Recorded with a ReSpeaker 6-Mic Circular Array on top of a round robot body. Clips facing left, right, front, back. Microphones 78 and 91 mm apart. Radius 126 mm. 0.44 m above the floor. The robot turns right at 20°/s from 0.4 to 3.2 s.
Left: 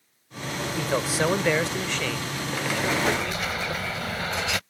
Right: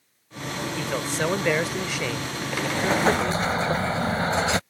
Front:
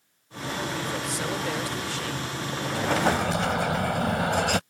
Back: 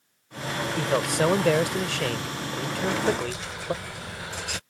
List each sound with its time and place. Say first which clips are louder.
0.8 s a man speaking: left 3 dB, back 6 dB; 165° left; by 3.7 s 145° right
2.7 s an explosion: right 4 dB, front 2 dB; 40° right; by 4.6 s 30° right